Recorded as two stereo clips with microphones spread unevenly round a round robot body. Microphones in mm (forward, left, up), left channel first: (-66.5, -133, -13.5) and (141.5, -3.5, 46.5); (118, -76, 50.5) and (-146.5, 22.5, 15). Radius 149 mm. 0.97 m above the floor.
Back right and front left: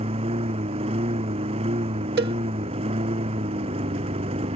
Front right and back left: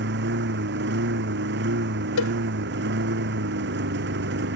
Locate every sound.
0.0 s a lawn mower: 105° left
2.2 s a cowbell: 15° right